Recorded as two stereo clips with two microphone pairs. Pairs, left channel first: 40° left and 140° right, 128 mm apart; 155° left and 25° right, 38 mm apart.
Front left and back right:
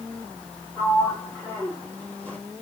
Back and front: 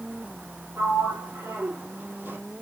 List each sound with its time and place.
0.8 s a sliding door: 35° right, 3.5 m